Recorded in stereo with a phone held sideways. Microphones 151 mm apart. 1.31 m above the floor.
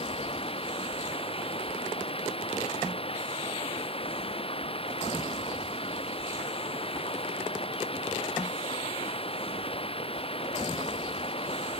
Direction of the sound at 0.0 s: 40° left (ahead or behind).